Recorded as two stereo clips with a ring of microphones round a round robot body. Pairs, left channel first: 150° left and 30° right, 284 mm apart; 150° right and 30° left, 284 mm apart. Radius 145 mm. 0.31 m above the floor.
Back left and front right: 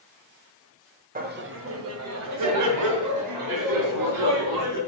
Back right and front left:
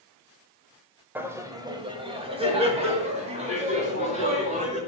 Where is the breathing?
No breathing in this recording.